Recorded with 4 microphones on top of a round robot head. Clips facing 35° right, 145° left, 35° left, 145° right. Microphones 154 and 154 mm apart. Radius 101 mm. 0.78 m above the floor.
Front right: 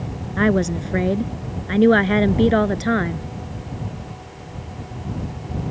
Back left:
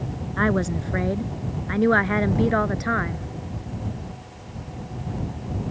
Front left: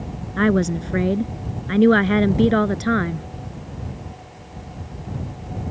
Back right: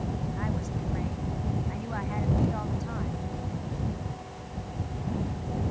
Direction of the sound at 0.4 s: 35° left.